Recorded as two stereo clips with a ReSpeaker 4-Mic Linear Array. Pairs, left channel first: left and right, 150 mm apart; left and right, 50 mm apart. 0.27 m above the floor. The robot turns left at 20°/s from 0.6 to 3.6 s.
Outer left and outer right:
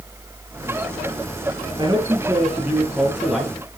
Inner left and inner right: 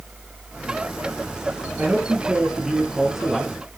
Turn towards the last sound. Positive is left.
turn(degrees=175)